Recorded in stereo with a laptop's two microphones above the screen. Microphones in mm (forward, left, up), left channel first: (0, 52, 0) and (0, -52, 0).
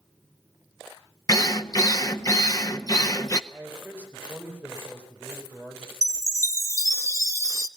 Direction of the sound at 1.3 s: 35° left (ahead or behind).